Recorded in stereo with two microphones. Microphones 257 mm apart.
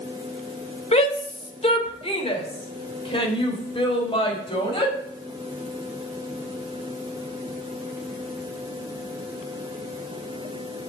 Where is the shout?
25° left (ahead or behind), 1.7 m; by 4.9 s 20° left (ahead or behind), 4 m.